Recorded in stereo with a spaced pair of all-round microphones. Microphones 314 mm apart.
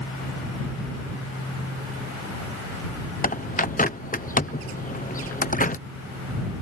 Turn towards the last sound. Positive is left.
turn(degrees=25)  # may be behind; listen again after turning